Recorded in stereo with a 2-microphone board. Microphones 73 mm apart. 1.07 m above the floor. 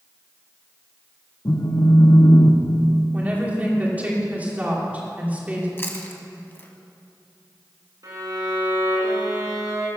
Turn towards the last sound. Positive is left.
turn(degrees=-55)  # may be behind; listen again after turning